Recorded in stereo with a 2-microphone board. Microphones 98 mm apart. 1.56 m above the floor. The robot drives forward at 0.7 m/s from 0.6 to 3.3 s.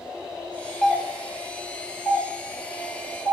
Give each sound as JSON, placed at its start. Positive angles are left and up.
{"t": 0.8, "sound": "a doorbell", "side_deg": 5, "distance_m": 0.5}